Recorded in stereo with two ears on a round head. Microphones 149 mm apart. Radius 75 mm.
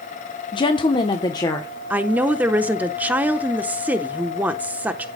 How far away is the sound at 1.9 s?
About 0.8 m.